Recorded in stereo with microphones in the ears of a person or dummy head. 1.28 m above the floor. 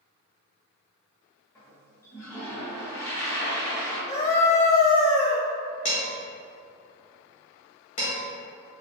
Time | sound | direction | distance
1.6 | a toilet flushing | 20° left (ahead or behind) | 0.8 m
4.1 | a scream | 20° left (ahead or behind) | 0.6 m
5.8 | dishes clattering | 40° left (ahead or behind) | 1.5 m